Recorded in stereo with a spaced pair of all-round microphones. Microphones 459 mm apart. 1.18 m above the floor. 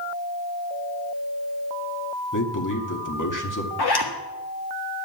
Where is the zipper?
60° left (ahead or behind), 1.5 m.